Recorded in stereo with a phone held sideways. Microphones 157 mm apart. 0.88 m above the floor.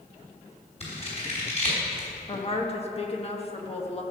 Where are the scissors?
45° left (ahead or behind), 4 m.